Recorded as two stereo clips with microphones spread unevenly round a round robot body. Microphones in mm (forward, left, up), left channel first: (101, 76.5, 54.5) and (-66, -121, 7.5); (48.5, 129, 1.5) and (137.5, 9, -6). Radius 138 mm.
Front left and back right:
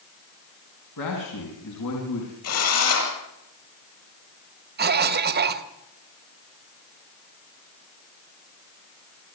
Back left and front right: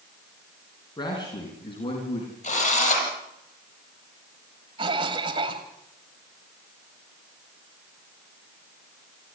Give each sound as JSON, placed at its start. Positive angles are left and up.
{"t": 1.0, "sound": "a man speaking", "azimuth_deg": 65, "distance_m": 4.5}
{"t": 2.4, "sound": "a drill", "azimuth_deg": 90, "distance_m": 8.0}
{"t": 4.8, "sound": "a cough", "azimuth_deg": -110, "distance_m": 1.5}